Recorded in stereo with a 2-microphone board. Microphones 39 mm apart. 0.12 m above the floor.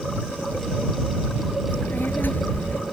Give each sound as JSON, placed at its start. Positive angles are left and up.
{"t": 1.7, "sound": "a child speaking", "side_deg": 50}